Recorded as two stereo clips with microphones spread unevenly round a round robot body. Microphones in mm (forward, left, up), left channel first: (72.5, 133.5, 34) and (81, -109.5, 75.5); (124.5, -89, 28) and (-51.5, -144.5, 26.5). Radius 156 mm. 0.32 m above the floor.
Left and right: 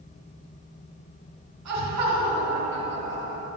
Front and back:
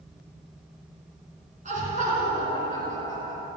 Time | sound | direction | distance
1.6 | laughter | 115° right | 3.5 m